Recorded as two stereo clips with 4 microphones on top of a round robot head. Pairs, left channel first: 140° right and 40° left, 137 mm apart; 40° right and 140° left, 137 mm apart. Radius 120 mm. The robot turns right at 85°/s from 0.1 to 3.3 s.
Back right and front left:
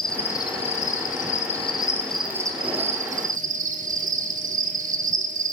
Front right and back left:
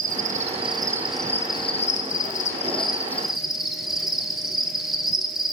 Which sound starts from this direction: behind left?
An insect, at 0.0 s.